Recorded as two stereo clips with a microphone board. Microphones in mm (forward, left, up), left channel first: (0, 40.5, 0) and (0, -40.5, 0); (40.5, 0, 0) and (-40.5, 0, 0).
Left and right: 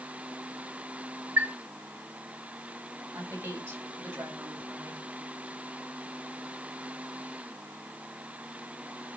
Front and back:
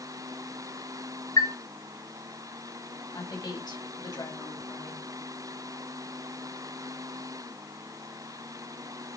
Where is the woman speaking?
30° right, 4 m.